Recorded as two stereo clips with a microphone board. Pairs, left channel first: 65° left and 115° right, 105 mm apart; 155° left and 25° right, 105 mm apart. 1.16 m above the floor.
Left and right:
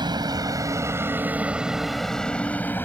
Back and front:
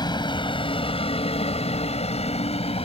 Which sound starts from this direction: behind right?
A vehicle, at 0.0 s.